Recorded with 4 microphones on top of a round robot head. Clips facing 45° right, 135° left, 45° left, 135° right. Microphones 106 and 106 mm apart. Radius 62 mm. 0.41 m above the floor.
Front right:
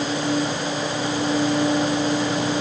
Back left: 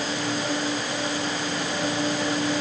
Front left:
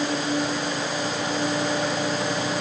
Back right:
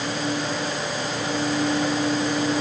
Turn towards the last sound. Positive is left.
No sound to turn to.